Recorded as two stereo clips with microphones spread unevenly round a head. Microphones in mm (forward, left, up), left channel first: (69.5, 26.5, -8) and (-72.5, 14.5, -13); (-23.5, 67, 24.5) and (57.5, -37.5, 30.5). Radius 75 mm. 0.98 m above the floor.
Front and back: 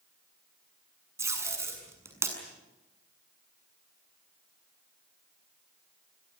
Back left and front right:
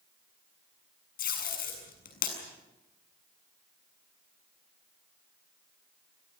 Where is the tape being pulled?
115° left, 7 m.